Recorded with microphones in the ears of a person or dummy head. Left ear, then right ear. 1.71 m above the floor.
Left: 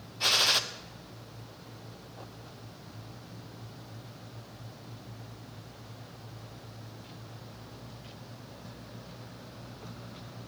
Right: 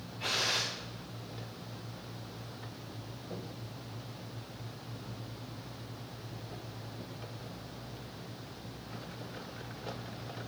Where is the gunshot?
40° left (ahead or behind), 0.6 m.